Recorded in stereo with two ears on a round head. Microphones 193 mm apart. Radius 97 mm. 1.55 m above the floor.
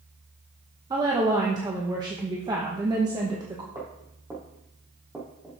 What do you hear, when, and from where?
0.9 s a woman speaking: 20° right (ahead or behind), 1.2 m
3.8 s footsteps: 15° right (ahead or behind), 3 m; by 5.6 s centre (ahead or behind), 2.5 m